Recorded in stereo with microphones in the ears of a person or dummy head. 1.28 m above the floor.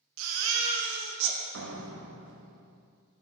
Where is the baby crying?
80° right, 1.0 m.